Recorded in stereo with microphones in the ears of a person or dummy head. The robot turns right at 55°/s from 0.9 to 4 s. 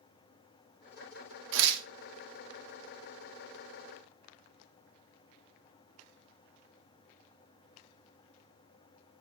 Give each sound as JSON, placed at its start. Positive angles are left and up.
{"t": 1.5, "sound": "tearing paper", "side_deg": -75, "distance_m": 0.6}